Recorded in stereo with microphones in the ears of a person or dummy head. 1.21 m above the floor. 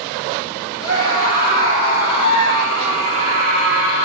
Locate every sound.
0.8 s a scream: 80° left, 4.5 m; by 4.0 s 70° left (ahead or behind), 6 m